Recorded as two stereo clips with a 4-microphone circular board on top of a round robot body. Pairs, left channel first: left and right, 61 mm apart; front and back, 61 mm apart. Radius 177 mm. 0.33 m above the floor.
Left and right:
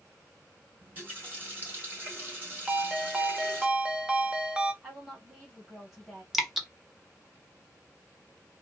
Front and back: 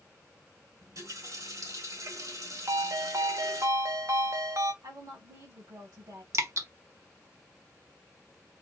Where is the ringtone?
160° right, 1.2 m.